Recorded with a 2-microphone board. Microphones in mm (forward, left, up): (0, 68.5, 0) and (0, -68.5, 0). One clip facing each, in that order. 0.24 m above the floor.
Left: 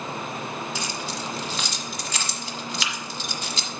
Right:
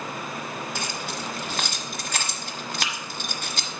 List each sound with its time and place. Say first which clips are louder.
0.8 s keys jangling: left 1 dB; 55° right (ahead or behind), 1.3 m